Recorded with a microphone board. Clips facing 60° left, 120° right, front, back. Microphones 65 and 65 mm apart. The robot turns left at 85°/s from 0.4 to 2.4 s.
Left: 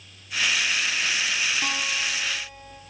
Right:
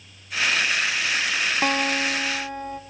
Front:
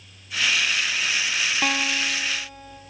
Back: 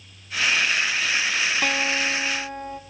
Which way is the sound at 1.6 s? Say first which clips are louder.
Right 6 dB, back 1 dB; 80° right.